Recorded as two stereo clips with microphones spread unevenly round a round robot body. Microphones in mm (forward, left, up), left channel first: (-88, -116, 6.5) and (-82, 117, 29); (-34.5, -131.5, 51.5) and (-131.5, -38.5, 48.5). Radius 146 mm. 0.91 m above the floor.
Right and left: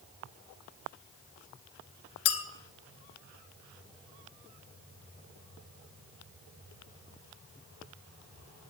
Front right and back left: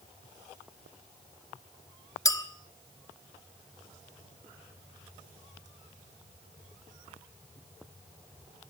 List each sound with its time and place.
2.2 s a clink: 110° right, 1.3 m